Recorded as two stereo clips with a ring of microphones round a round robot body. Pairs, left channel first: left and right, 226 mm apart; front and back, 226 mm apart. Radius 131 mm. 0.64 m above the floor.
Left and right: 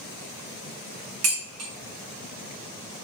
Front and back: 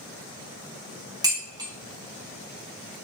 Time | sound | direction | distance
1.2 | dishes clattering | 105° right | 3 m